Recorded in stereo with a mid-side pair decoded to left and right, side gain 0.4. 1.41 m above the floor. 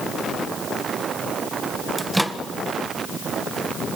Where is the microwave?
5° right, 1.0 m.